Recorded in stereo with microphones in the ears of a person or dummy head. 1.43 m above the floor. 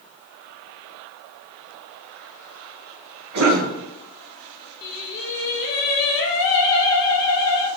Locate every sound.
3.3 s a cough: 80° right, 1.1 m
4.8 s singing: 55° left (ahead or behind), 0.6 m